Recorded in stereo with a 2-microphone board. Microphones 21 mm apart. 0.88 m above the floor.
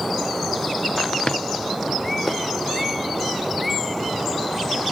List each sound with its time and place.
1.3 s a drawer: 45° left (ahead or behind), 0.6 m